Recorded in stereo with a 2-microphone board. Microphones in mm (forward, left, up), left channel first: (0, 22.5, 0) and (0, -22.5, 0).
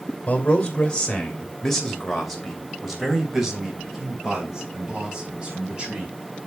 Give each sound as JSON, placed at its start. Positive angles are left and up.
{"t": 0.3, "sound": "a man speaking", "side_deg": 30, "distance_m": 2.5}